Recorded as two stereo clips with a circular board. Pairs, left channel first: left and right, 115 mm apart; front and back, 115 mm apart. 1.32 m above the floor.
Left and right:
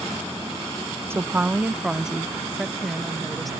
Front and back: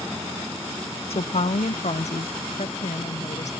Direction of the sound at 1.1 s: 25° right.